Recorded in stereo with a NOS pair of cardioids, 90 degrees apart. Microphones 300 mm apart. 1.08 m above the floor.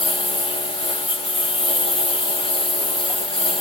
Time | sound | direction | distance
0.0 | a lawn mower | 15° left | ?